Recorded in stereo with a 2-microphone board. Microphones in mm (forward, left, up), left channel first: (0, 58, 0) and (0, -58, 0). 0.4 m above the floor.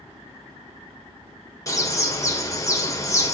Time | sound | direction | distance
1.7 | a bird | 25° left (ahead or behind) | 1.5 m